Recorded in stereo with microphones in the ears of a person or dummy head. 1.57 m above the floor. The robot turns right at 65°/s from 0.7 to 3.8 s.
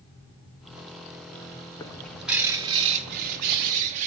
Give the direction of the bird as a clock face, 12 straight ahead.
7 o'clock.